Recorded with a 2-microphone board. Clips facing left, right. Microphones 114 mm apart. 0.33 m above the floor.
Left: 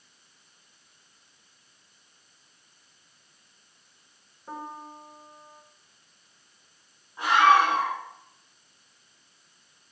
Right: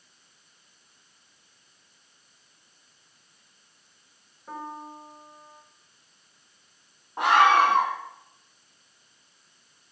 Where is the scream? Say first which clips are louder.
Right 1 dB; 65° right (ahead or behind), 3 m.